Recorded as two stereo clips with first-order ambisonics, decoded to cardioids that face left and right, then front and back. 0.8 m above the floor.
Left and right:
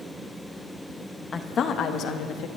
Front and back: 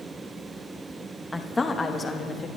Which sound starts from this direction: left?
A woman speaking, at 1.3 s.